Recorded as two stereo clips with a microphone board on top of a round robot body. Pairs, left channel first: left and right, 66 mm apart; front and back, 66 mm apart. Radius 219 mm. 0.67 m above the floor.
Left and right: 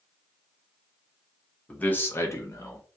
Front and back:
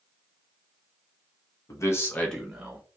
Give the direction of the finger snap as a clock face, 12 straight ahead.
No finger snap in this recording.